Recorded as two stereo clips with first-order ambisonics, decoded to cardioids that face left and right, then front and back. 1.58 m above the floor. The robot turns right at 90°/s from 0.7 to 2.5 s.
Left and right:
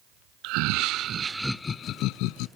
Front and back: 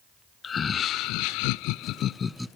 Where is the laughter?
70° right, 0.6 m; by 2.5 s 90° left, 0.6 m.